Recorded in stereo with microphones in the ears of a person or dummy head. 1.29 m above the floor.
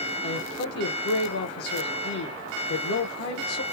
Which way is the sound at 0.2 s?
85° left.